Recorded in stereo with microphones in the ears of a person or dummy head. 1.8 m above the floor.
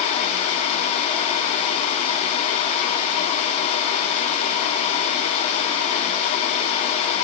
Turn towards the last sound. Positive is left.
No sound to turn to.